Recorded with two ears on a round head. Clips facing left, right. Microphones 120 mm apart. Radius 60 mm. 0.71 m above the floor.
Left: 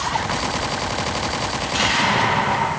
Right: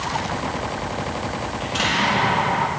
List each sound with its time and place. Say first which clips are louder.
1.6 s an explosion: left 1 dB; centre (ahead or behind), 7 m